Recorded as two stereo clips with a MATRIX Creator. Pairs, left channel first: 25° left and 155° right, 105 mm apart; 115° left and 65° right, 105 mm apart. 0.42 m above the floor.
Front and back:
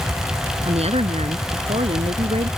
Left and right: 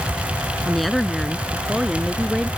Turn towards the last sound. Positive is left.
turn(degrees=-155)